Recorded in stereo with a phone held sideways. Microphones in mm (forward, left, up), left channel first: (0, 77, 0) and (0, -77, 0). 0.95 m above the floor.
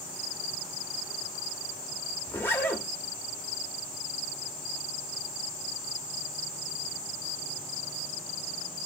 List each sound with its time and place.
2.3 s a zipper: 15° left (ahead or behind), 0.7 m